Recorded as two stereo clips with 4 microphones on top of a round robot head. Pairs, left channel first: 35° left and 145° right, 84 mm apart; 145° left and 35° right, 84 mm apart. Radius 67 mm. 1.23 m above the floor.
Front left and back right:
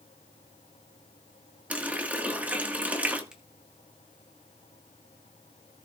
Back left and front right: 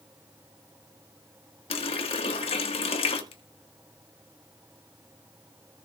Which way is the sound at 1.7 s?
140° left.